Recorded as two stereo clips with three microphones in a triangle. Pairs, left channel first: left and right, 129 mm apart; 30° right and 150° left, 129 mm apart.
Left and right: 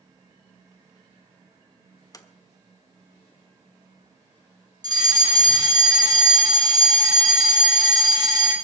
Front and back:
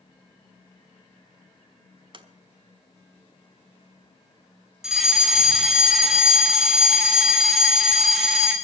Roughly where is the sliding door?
Behind left.